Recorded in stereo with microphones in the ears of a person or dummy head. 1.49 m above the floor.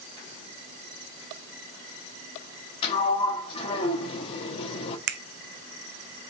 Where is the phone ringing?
I don't hear a phone ringing.